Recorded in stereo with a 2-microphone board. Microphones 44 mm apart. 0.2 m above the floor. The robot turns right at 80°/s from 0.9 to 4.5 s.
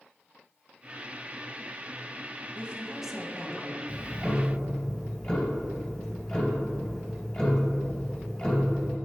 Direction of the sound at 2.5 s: 50° right.